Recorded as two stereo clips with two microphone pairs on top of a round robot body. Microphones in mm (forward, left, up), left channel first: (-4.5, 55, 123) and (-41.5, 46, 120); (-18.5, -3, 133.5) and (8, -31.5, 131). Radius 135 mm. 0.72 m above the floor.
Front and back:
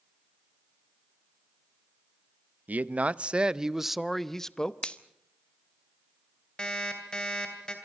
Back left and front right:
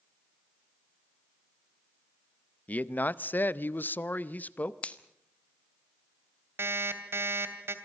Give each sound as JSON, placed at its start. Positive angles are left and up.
{"t": 2.7, "sound": "a man speaking", "azimuth_deg": 175, "distance_m": 1.0}
{"t": 4.8, "sound": "a finger snap", "azimuth_deg": 75, "distance_m": 1.5}
{"t": 6.6, "sound": "an alarm clock", "azimuth_deg": -60, "distance_m": 2.5}